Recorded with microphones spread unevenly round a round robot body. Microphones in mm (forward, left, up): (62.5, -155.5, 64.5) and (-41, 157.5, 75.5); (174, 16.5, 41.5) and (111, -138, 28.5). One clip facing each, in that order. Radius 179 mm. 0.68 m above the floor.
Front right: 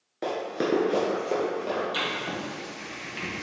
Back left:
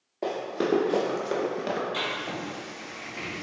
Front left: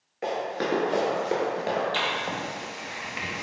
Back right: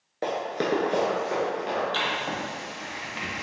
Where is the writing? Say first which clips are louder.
Front right 1 dB, even; 10° right, 1.2 m.